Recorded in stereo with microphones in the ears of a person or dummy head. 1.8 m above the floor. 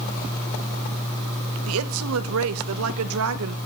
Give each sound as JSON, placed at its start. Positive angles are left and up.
{"t": 1.7, "sound": "a woman speaking", "side_deg": -80, "distance_m": 0.9}